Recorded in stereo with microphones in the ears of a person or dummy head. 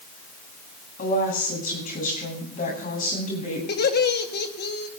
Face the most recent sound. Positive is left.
turn(degrees=55)  # may be behind; listen again after turning